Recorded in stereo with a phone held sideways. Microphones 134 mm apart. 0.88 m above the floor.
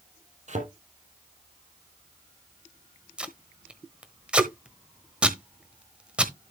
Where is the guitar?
I don't hear a guitar.